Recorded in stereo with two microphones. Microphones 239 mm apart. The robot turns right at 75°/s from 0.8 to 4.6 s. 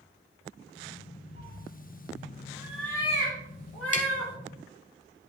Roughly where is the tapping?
Left.